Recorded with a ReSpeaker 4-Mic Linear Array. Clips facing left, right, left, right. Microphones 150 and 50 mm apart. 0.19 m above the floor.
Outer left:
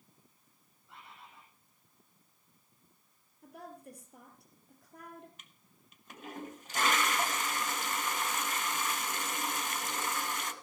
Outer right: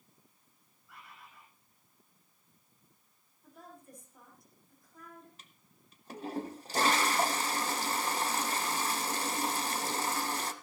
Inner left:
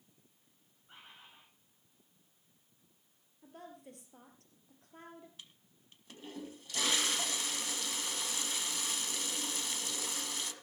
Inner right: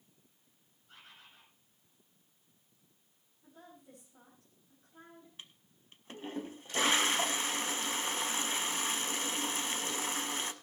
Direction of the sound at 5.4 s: 35° right (ahead or behind).